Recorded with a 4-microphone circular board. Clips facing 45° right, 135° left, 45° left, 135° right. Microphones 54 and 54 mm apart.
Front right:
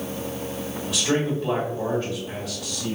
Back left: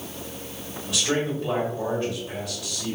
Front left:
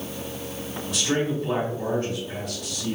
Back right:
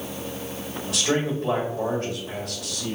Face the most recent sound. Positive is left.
turn(degrees=-125)